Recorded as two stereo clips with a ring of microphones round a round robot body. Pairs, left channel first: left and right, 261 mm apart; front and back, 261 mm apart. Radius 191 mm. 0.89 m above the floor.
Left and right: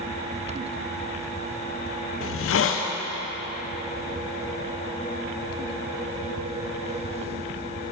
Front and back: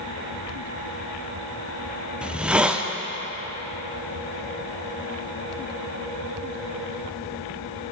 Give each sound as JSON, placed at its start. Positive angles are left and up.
{"t": 2.2, "sound": "a hiss", "azimuth_deg": 95, "distance_m": 0.5}